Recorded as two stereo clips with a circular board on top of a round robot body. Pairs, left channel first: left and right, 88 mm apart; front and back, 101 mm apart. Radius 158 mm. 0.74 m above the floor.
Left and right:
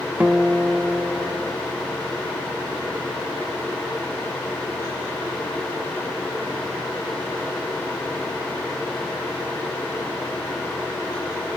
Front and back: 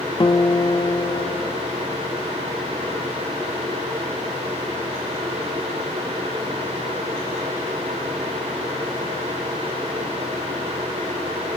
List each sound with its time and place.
0.2 s a guitar: 20° right, 1.1 m